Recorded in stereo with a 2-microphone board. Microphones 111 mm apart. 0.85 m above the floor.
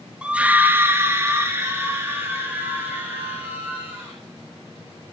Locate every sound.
0.2 s a scream: 10° right (ahead or behind), 1.0 m; by 4.2 s 20° right (ahead or behind), 4 m